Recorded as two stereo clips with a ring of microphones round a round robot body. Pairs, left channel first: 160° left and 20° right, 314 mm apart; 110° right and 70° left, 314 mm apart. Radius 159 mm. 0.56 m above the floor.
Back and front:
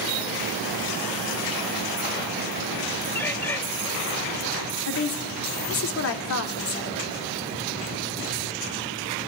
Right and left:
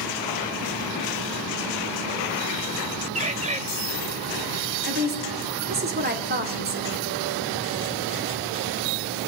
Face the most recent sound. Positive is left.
turn(degrees=120)